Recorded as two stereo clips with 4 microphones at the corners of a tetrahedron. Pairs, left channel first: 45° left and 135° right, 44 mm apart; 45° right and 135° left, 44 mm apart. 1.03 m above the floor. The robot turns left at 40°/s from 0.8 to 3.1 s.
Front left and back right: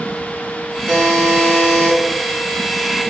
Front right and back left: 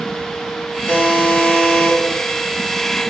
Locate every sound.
0.9 s a buzzer: 35° right, 1.4 m; by 2.0 s 80° right, 1.4 m